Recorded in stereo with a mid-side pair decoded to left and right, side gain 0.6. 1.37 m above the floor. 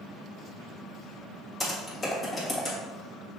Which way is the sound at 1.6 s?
20° left.